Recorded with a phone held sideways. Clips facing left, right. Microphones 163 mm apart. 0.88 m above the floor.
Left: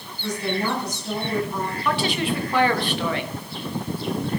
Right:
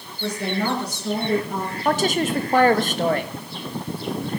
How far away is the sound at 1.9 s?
About 1.3 m.